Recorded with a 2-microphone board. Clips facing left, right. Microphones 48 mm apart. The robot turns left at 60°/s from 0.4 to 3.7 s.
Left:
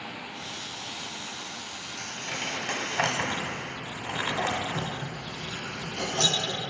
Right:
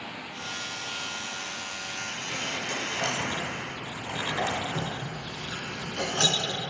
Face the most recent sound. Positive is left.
turn(degrees=-55)  # may be behind; listen again after turning